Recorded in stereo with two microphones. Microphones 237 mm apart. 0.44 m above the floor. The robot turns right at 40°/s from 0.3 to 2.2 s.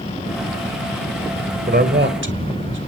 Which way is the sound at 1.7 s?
40° right (ahead or behind).